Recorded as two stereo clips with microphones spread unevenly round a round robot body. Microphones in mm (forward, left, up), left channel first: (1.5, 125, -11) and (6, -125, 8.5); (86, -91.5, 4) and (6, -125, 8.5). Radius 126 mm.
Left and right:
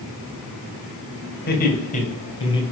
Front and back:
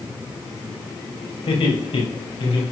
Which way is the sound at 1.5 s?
40° left.